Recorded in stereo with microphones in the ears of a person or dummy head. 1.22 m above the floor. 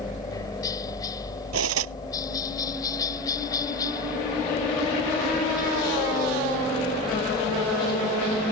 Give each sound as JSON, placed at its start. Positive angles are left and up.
{"t": 0.0, "sound": "a helicopter", "side_deg": 15}
{"t": 1.5, "sound": "cutlery clinking", "side_deg": -75}